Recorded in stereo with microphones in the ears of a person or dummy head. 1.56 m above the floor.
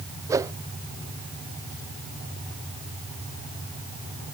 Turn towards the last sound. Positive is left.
turn(degrees=-15)  # may be behind; listen again after turning